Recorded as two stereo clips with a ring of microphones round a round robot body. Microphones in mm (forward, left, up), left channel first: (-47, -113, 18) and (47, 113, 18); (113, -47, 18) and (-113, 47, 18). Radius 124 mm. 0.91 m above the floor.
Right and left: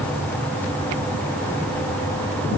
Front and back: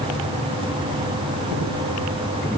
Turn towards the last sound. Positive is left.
No sound to turn to.